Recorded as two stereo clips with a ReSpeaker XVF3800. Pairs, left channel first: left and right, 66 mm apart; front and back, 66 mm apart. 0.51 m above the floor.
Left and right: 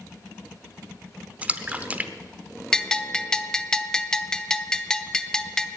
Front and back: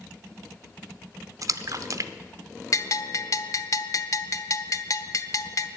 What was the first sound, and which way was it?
A splash, 155° right.